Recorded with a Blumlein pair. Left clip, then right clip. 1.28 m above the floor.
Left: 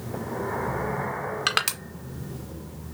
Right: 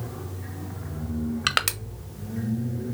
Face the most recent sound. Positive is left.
turn(degrees=-5)